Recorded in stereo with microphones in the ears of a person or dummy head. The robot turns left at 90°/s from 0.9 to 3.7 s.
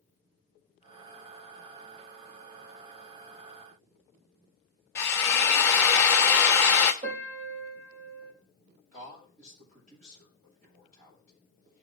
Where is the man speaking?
45° right (ahead or behind), 7.5 m.